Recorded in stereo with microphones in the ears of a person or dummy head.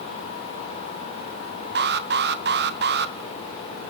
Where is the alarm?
40° right (ahead or behind), 1.3 m.